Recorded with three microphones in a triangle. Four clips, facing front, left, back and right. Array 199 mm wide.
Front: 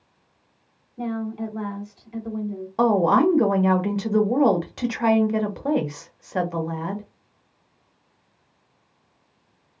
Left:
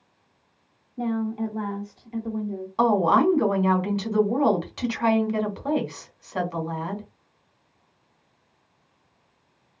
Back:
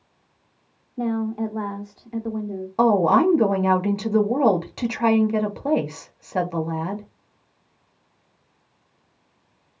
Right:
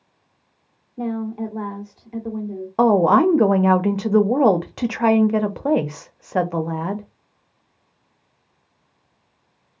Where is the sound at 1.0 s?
145° right, 1.4 m.